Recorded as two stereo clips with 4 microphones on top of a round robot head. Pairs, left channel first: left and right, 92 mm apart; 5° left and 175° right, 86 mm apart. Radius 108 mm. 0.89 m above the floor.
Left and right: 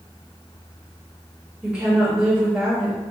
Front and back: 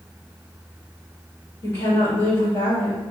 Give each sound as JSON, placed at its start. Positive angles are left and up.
{"t": 1.6, "sound": "a woman speaking", "azimuth_deg": -20, "distance_m": 1.3}